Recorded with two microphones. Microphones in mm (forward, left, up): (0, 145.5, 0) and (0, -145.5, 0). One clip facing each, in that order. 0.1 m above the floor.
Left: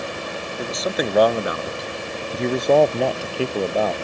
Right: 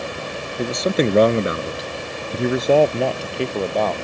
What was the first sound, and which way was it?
A man speaking, 30° right (ahead or behind).